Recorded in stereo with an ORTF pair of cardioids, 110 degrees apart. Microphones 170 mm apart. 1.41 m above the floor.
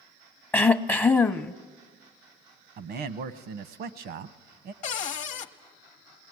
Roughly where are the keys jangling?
I don't hear keys jangling.